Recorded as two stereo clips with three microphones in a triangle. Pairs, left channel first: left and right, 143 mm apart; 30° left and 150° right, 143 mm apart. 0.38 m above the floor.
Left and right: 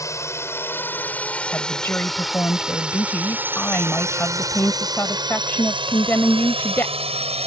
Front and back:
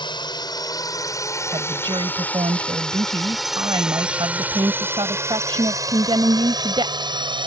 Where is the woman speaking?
165° left.